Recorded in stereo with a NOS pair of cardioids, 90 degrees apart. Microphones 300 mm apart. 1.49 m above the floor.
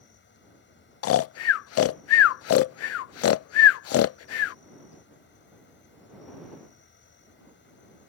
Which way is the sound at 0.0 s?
40° left.